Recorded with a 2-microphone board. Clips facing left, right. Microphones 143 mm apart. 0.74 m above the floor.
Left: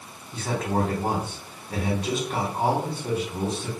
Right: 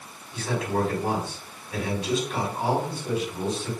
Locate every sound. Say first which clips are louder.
0.3 s a man speaking: left 1 dB; 50° left (ahead or behind), 1.7 m